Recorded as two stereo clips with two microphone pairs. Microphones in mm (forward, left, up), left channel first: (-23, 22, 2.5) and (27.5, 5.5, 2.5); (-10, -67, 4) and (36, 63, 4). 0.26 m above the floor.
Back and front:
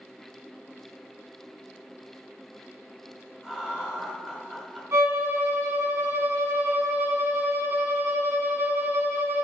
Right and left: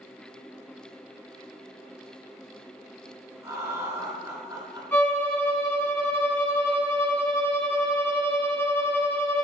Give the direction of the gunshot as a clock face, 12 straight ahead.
No gunshot in this recording.